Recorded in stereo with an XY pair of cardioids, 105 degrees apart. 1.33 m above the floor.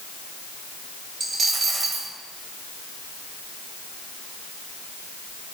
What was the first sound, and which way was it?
A dropped coin, 35° right.